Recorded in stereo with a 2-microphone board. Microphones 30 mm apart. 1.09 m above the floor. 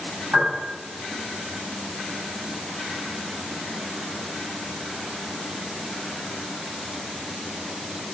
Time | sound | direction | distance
0.3 | a piano | 85° right | 4 m